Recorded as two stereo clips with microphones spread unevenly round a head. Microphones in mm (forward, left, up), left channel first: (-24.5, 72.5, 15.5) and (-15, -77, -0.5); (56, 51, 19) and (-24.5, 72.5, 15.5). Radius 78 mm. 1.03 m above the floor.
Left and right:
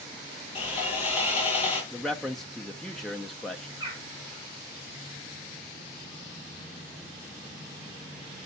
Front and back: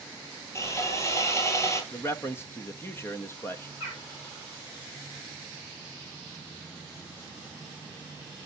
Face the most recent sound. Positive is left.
turn(degrees=-15)